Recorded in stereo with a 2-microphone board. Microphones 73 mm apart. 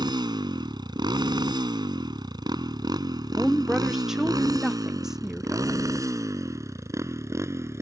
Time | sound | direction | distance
0.0 | a motorcycle | 80° right | ?
3.4 | a woman speaking | 5° right (ahead or behind) | ?